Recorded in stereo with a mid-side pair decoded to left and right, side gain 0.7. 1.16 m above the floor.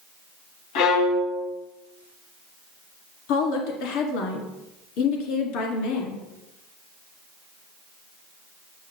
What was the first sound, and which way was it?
A violin, 70° left.